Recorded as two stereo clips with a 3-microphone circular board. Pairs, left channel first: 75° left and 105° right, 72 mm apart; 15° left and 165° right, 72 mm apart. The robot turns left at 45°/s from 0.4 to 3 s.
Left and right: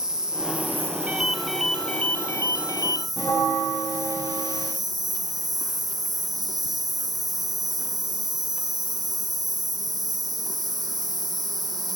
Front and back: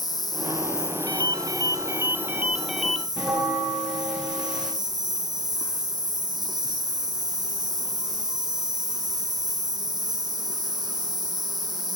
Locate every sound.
0.0 s an insect: 20° right, 2 m; by 12.0 s 140° right, 2 m
1.1 s a ringtone: 170° right, 1.5 m; by 3.1 s 100° left, 1.5 m
3.2 s a bell: 115° left, 8 m